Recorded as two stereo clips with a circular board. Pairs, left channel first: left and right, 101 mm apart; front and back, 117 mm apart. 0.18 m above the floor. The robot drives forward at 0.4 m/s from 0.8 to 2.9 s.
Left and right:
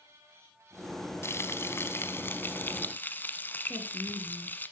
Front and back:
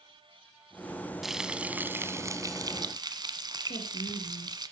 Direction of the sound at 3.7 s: 5° left.